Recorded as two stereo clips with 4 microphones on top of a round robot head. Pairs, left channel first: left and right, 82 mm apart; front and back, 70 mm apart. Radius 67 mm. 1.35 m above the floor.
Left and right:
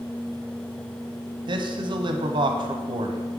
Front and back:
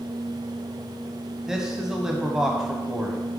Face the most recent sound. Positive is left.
turn(degrees=-100)